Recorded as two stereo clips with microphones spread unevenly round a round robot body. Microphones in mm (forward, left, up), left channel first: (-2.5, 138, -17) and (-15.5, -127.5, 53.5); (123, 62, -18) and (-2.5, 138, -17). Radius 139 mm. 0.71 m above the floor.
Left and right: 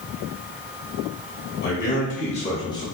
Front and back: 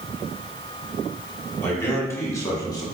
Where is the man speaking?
45° left, 1.8 m; by 2.9 s 25° left, 1.2 m.